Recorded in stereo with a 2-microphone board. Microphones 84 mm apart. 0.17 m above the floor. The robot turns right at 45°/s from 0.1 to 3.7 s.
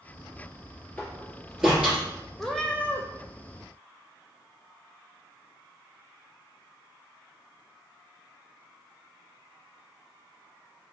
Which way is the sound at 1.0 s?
20° left (ahead or behind).